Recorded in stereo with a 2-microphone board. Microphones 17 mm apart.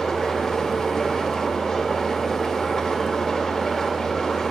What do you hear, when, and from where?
0.0 s an engine running: 25° left (ahead or behind), 2 m